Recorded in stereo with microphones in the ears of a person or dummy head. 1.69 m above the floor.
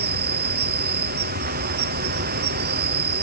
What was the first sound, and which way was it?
An insect, 45° right (ahead or behind).